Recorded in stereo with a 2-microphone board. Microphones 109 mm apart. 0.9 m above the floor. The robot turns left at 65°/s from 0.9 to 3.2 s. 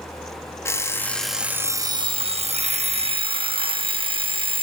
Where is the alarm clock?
25° left, 0.5 m; by 4.6 s 125° right, 0.5 m.